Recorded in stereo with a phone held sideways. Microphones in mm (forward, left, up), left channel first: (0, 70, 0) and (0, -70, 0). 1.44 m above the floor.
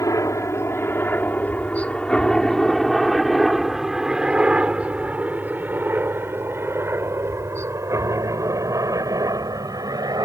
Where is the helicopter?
20° left (ahead or behind); by 10.3 s 25° right (ahead or behind).